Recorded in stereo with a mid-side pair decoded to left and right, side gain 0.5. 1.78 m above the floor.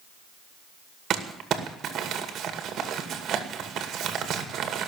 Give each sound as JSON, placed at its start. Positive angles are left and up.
{"t": 1.1, "sound": "crumpling", "azimuth_deg": -55, "distance_m": 2.0}